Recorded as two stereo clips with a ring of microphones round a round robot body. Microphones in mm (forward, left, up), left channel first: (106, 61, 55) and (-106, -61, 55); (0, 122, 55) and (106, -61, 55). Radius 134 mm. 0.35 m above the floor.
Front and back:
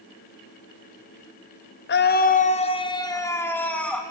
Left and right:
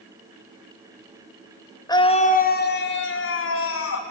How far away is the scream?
About 1.4 m.